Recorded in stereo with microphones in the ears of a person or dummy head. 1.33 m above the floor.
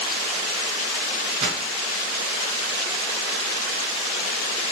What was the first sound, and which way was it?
A pop, 35° right (ahead or behind).